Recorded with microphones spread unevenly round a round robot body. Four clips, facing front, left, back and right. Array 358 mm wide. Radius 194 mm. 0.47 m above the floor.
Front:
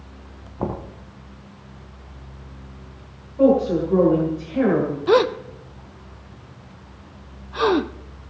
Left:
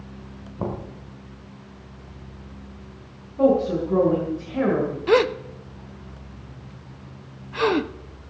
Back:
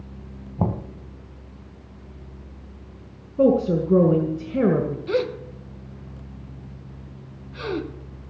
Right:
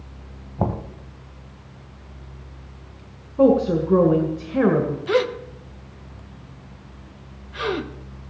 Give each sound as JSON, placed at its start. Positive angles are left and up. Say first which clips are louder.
{"t": 0.6, "sound": "knocking", "louder": "right 4 dB, back 1 dB", "azimuth_deg": -160, "distance_m": 1.5}
{"t": 3.4, "sound": "a woman speaking", "louder": "right 2 dB, front 2 dB", "azimuth_deg": -155, "distance_m": 1.9}
{"t": 5.1, "sound": "a gasp", "louder": "left 5 dB, front 11 dB", "azimuth_deg": 20, "distance_m": 0.6}